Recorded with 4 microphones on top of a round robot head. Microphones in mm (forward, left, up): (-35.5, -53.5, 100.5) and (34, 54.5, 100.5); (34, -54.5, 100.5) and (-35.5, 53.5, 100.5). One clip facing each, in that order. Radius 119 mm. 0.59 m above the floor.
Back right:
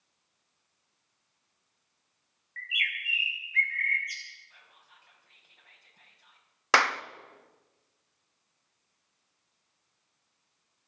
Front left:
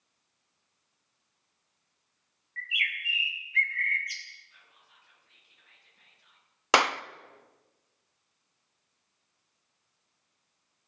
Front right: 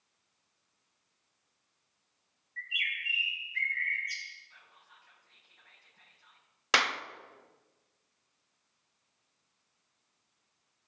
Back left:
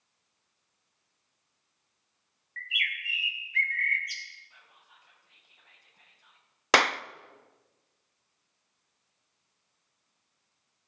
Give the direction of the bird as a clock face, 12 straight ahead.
8 o'clock.